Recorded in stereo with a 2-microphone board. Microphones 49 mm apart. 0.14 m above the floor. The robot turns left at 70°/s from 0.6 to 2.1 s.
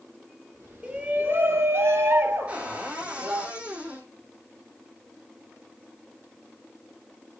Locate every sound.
0.8 s a shout: 25° right, 3 m; by 3.5 s 115° right, 3 m
2.5 s a cupboard door: 25° right (ahead or behind), 3.5 m